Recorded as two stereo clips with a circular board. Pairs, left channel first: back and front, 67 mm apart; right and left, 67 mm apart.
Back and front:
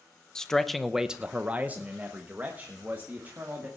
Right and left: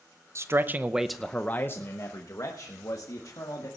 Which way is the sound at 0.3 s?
105° left.